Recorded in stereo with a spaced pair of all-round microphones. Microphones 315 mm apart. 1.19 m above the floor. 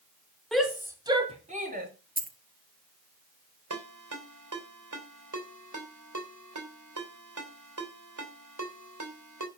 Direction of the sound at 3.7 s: 70° right (ahead or behind).